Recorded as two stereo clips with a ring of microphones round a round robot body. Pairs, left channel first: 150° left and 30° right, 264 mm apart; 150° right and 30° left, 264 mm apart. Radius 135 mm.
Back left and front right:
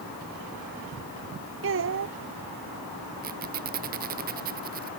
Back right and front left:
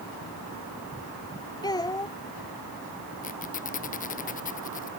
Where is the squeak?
90° right.